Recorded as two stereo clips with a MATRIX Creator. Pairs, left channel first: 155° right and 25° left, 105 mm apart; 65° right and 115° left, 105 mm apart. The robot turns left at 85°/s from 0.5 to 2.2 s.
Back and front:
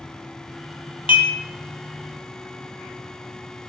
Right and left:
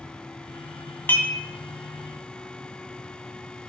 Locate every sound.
1.1 s dishes clattering: 135° right, 1.7 m; by 1.3 s 155° right, 1.7 m